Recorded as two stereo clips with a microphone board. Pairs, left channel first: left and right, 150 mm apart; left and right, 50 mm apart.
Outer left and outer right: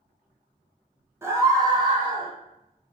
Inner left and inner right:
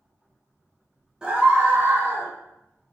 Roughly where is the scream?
Centre.